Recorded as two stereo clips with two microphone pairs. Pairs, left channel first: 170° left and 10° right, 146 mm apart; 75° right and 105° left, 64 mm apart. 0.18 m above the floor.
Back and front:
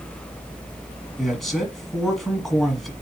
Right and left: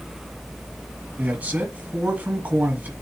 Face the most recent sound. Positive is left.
turn(degrees=80)